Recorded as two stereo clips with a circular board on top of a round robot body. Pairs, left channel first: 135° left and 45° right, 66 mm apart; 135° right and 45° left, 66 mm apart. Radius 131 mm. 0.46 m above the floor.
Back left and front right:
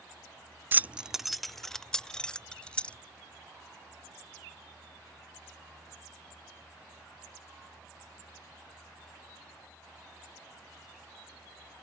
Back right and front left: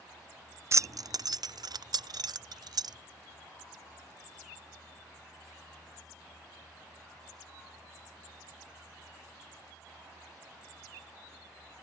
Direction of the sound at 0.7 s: 10° left.